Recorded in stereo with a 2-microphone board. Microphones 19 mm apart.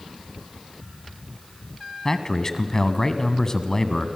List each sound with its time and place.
2.0 s a man speaking: 30° left (ahead or behind), 1.5 m